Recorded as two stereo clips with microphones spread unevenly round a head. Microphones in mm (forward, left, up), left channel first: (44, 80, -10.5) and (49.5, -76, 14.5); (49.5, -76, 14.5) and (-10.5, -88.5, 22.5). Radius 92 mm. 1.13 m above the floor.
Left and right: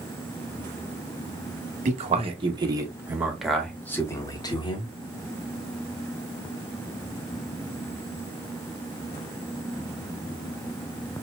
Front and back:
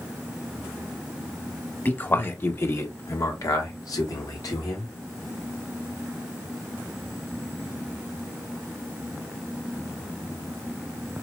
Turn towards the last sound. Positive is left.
turn(degrees=40)